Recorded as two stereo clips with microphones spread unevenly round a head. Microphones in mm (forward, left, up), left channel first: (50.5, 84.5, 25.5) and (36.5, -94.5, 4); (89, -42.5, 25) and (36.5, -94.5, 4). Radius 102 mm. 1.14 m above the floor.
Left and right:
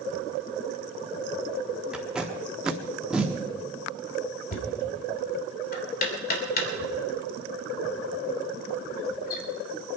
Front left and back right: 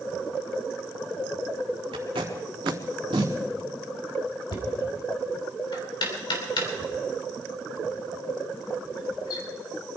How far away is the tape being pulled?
About 1.3 m.